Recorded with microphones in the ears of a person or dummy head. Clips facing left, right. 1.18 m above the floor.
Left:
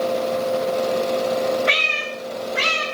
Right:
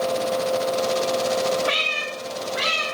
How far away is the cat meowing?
About 1.5 m.